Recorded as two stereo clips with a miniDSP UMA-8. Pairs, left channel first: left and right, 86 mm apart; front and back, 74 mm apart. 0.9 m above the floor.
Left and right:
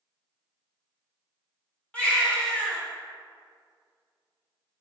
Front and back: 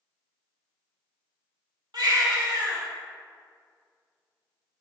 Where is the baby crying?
165° left, 1.8 m.